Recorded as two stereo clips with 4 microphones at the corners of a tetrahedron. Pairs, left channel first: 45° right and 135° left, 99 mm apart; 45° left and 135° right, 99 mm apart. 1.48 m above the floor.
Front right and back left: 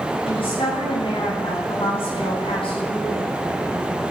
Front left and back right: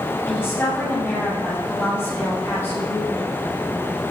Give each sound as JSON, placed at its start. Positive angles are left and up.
{"t": 0.2, "sound": "a woman speaking", "azimuth_deg": -30, "distance_m": 8.5}